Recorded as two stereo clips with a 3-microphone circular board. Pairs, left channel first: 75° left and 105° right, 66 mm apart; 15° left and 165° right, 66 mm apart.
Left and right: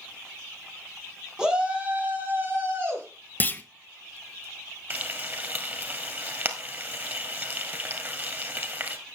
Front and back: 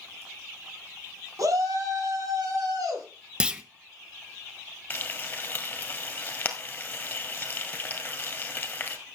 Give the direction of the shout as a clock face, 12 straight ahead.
6 o'clock.